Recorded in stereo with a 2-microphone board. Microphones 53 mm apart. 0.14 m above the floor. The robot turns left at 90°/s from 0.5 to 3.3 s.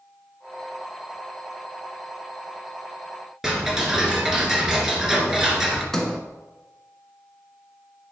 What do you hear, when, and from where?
3.4 s ticking: 10° right (ahead or behind), 1.9 m
5.9 s a sliding door: 5° left (ahead or behind), 1.4 m